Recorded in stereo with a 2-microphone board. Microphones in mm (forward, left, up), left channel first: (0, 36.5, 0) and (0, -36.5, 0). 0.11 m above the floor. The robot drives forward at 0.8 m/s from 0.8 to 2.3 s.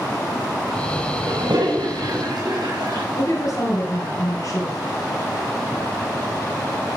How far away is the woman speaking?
About 2.5 m.